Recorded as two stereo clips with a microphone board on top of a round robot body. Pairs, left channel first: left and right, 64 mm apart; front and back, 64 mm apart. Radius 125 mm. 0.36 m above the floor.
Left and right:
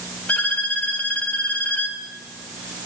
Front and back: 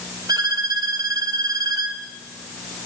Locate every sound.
0.3 s a violin: 160° left, 3.5 m